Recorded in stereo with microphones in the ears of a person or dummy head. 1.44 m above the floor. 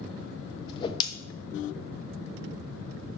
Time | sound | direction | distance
0.7 | a whoosh | 25° left (ahead or behind) | 0.6 m